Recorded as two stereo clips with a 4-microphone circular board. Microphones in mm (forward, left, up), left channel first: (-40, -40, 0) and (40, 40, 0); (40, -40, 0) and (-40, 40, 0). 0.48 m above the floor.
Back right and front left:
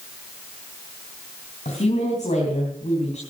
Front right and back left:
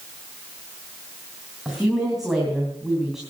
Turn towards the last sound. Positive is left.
turn(degrees=-140)